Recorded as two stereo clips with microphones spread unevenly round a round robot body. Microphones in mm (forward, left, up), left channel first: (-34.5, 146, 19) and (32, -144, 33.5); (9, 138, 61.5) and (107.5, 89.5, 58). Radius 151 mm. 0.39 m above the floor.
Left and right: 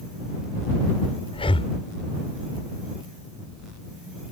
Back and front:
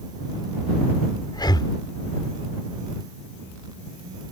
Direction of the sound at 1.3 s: 160° left.